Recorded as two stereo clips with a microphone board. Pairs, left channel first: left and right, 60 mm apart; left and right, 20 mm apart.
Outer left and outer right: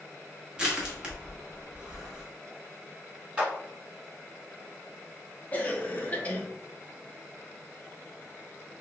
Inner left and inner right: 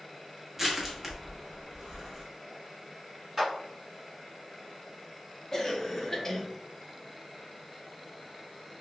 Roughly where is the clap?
Right.